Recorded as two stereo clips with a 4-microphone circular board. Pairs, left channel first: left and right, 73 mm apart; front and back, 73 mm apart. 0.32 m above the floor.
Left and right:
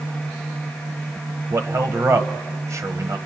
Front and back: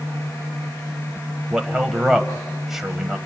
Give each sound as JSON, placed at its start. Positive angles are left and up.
{"t": 1.5, "sound": "a man speaking", "azimuth_deg": -100, "distance_m": 1.5}